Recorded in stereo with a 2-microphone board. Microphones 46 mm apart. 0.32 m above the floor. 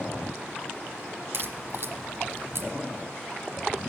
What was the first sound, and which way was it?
A crack, 60° right (ahead or behind).